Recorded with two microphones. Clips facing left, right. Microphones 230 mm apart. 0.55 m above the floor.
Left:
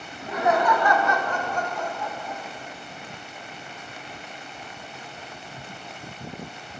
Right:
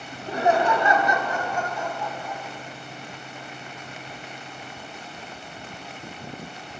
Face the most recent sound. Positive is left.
turn(degrees=5)  # may be behind; listen again after turning